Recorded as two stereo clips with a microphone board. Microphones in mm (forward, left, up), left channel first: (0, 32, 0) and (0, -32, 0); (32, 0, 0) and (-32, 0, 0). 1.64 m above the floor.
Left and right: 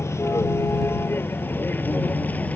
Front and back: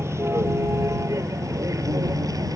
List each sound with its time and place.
0.0 s a vehicle: 135° left; by 2.6 s 155° left